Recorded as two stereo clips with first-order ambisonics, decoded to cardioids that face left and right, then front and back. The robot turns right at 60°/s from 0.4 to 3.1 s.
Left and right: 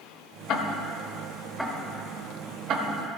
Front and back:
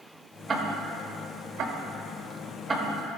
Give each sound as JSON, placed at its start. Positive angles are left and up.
{"t": 0.5, "sound": "ticking", "azimuth_deg": 115, "distance_m": 1.0}